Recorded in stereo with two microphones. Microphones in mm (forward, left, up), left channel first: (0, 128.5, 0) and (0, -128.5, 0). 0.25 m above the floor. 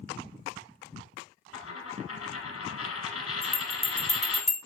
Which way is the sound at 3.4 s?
25° left (ahead or behind).